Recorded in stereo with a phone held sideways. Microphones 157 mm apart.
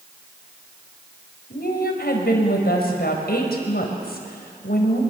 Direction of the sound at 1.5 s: 85° left.